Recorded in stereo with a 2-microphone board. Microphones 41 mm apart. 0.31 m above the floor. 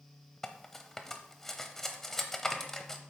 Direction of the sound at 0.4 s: 10° left (ahead or behind).